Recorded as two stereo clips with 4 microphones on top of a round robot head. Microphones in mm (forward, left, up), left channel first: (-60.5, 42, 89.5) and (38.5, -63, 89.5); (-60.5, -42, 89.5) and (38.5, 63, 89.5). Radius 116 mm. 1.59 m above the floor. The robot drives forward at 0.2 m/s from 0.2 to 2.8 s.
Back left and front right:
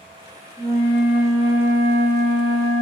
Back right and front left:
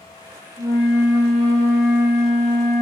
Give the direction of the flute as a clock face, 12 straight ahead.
6 o'clock.